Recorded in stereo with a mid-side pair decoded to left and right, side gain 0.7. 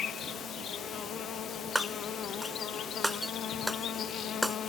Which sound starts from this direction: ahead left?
An insect, at 0.0 s.